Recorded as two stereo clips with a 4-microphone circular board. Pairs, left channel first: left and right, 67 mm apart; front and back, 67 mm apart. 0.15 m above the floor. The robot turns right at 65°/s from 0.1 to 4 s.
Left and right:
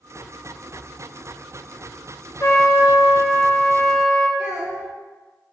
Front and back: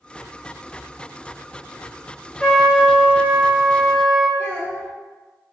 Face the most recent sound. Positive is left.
turn(degrees=-25)